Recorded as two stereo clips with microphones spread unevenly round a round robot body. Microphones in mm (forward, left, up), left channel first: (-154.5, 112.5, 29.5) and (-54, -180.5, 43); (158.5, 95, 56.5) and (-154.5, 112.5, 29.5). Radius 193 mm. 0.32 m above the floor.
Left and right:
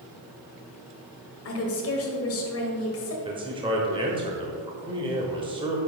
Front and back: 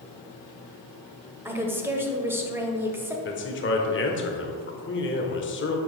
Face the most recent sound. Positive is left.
turn(degrees=-5)